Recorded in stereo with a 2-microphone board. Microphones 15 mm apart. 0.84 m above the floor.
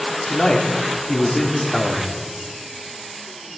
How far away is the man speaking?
About 2.5 m.